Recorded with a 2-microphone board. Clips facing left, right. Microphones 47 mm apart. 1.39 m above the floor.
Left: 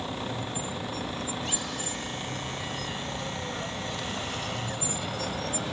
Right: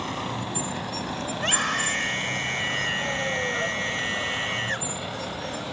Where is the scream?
60° right (ahead or behind).